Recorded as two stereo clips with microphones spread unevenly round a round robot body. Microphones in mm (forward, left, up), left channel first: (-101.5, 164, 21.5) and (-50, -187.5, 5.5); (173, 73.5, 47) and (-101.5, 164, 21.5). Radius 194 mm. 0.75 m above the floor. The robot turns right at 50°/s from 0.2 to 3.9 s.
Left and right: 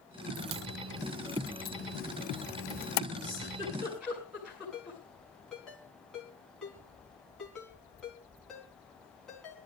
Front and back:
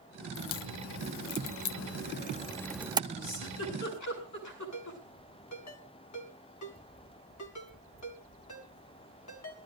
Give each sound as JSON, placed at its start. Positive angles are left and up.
{"t": 0.3, "sound": "a crack", "azimuth_deg": -45, "distance_m": 0.7}
{"t": 3.2, "sound": "a giggle", "azimuth_deg": -30, "distance_m": 8.0}
{"t": 4.7, "sound": "a ringtone", "azimuth_deg": 10, "distance_m": 4.5}